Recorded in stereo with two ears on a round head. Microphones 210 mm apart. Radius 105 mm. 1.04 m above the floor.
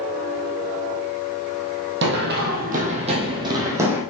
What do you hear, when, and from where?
2.0 s running footsteps: 50° right (ahead or behind), 1.7 m; by 4.0 s 10° right (ahead or behind), 1.9 m